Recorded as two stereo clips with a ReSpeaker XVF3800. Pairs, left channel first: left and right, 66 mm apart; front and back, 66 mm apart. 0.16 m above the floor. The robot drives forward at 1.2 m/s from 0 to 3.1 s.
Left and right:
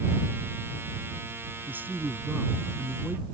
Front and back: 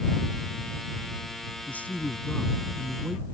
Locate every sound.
1.7 s a man speaking: 45° right; by 3.3 s 125° right